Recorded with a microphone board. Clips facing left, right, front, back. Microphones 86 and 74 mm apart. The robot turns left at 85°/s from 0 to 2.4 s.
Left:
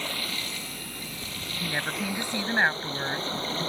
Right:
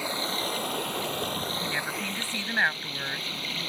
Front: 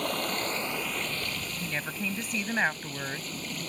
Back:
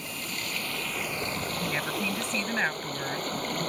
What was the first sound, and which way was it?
Running water, 10° right.